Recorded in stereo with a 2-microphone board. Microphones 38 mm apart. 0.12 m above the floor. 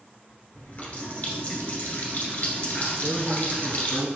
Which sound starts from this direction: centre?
A man speaking, at 3.0 s.